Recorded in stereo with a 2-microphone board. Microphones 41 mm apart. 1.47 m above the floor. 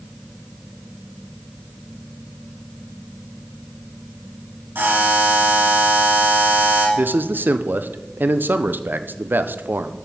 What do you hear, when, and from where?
4.8 s a buzzer: 75° right (ahead or behind), 3 m
7.0 s a man speaking: 65° right (ahead or behind), 0.6 m